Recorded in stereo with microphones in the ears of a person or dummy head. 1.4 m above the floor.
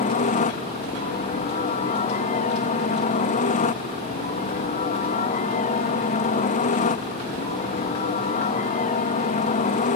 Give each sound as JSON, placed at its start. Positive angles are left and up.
{"t": 0.0, "sound": "a helicopter", "side_deg": 40}